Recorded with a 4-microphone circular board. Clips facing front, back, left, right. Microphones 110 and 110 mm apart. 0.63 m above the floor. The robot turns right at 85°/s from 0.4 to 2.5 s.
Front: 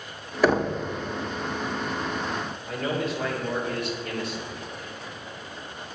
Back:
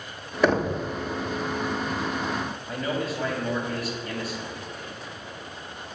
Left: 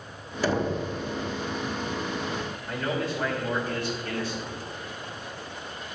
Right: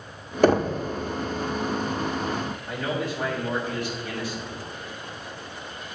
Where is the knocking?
90° right, 0.7 m; by 0.8 s 60° right, 0.7 m.